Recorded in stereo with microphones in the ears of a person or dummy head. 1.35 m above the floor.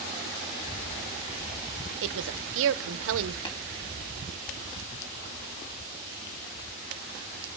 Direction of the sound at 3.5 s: 25° left (ahead or behind).